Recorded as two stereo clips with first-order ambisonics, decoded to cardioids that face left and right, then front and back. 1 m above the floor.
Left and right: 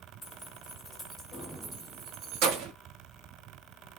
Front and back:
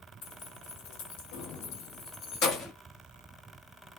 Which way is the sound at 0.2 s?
15° left.